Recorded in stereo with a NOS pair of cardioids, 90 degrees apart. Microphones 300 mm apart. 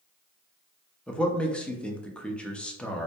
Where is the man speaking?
5° left, 0.6 m.